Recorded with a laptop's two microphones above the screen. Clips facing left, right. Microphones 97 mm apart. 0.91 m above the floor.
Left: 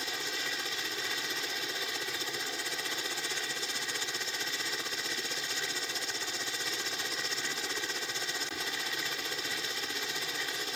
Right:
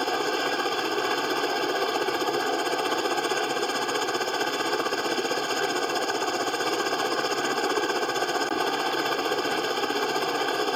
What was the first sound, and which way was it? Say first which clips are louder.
A helicopter: right 14 dB; 60° right (ahead or behind).